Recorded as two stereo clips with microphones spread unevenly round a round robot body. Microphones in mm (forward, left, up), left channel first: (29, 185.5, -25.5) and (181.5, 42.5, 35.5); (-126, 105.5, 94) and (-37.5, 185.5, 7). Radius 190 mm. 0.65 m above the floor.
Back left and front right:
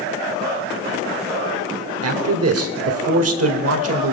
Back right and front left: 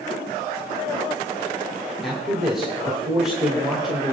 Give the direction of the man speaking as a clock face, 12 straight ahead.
1 o'clock.